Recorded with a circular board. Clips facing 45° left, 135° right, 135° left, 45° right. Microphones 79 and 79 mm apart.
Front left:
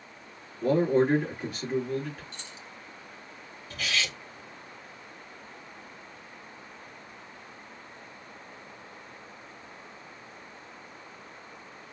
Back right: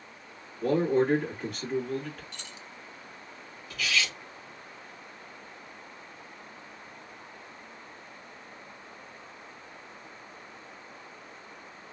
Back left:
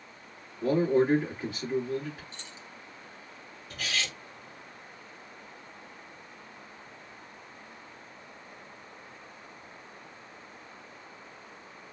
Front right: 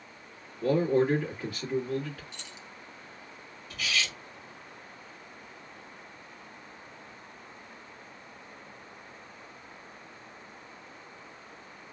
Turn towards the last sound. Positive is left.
turn(degrees=100)